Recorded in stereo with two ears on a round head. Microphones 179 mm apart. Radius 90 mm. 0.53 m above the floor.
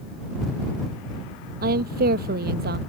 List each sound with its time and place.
1.6 s a woman speaking: 45° right (ahead or behind); by 2.8 s 50° right (ahead or behind)